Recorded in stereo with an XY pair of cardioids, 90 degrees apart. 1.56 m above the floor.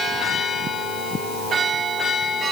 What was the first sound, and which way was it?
Only background noise.